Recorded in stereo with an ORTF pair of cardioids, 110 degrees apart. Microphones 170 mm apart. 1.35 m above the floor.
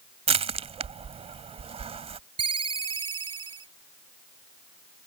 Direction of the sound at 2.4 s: 30° right.